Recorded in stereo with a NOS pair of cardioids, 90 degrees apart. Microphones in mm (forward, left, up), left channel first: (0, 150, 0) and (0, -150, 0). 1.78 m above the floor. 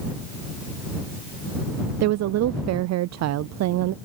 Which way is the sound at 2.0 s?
65° right.